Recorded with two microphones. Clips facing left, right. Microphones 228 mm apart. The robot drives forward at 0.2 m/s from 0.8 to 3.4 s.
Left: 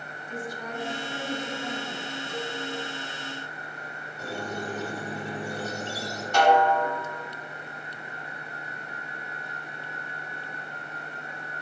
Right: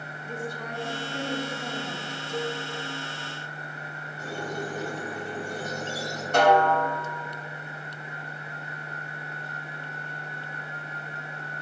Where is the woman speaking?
60° right (ahead or behind), 1.1 m; by 2.2 s 50° right (ahead or behind), 1.3 m.